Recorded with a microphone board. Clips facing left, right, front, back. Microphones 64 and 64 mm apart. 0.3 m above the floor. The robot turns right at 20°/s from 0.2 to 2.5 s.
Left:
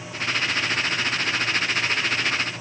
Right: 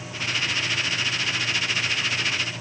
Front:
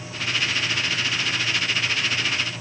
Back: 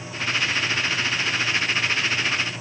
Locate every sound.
Only background noise.